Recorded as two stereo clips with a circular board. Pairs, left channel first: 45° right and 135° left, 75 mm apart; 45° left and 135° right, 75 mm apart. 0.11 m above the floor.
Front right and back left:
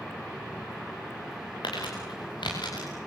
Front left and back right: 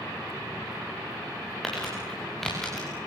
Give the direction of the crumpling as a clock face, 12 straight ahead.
1 o'clock.